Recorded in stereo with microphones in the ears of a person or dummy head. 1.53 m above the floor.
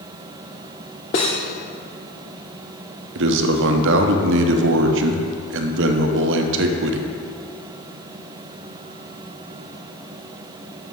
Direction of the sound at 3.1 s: 65° right (ahead or behind).